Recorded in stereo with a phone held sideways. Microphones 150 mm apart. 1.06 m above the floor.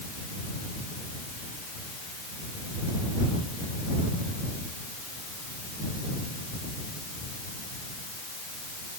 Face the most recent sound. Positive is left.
No sound to turn to.